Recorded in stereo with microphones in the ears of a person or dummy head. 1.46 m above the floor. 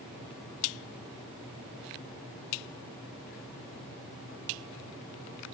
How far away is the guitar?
No guitar in this recording.